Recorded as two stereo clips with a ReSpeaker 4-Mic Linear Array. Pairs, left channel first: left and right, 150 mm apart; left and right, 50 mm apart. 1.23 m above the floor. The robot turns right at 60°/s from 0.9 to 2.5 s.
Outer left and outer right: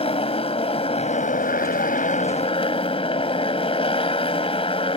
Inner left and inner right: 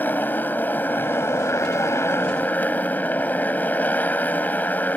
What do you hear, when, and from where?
0.0 s a motorcycle: 45° left; by 5.0 s 140° left